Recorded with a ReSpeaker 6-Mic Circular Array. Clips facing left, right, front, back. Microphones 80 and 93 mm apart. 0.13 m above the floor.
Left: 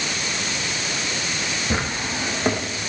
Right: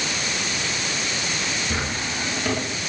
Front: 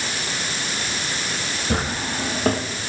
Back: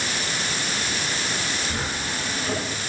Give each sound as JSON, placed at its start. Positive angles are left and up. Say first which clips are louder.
{"t": 1.7, "sound": "a drawer", "louder": "left 2 dB, front 4 dB", "azimuth_deg": 30, "distance_m": 5.0}